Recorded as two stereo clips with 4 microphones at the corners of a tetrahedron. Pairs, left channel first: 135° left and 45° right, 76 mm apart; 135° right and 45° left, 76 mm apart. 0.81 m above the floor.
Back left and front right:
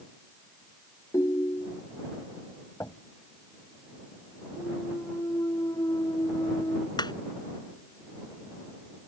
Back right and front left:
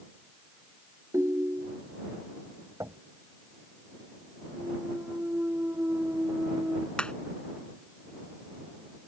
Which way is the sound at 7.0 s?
145° left.